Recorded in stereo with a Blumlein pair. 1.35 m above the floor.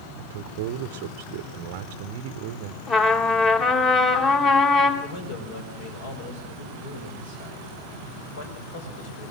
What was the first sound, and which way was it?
A man speaking, 50° right.